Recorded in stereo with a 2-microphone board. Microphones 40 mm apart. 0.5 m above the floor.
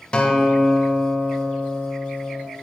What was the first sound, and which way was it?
A guitar, 25° left (ahead or behind).